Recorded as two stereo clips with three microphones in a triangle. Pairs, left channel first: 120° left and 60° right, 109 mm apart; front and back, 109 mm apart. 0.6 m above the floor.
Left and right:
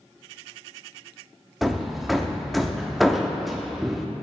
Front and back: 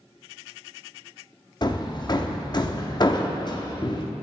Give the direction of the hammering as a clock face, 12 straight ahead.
11 o'clock.